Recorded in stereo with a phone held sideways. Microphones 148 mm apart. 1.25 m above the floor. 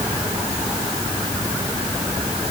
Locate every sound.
Only background noise.